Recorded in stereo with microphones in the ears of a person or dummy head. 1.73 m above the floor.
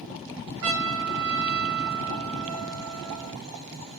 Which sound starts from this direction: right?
A trumpet, at 0.6 s.